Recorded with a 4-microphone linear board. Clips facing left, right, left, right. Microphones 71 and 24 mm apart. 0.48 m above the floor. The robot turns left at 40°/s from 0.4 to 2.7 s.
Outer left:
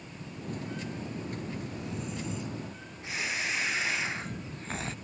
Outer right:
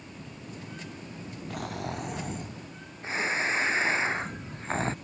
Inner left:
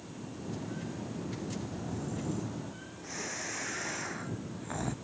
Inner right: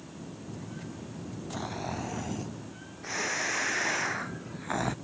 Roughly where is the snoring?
Right.